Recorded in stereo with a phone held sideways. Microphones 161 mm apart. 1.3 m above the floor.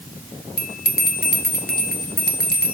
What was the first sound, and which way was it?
A bell, 85° left.